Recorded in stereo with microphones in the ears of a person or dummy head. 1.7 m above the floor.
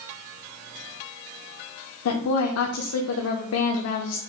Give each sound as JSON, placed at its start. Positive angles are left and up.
{"t": 2.0, "sound": "a woman speaking", "side_deg": 80, "distance_m": 0.5}